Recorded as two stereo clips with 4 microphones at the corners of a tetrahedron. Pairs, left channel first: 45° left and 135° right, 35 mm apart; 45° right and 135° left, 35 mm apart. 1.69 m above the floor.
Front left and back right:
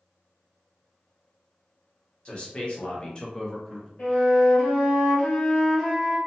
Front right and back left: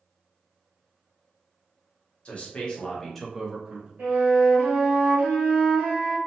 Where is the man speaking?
5° right, 1.0 m; by 3.9 s 120° left, 0.7 m.